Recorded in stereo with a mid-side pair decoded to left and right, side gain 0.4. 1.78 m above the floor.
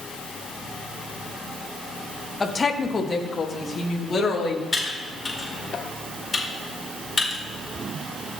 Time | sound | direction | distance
2.4 | a woman speaking | 30° left | 1.7 m
4.7 | typing on a keyboard | 30° left | 4.5 m